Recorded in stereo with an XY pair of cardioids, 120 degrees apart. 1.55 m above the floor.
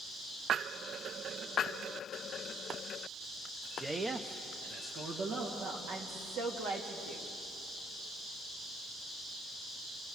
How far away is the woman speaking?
About 3.5 m.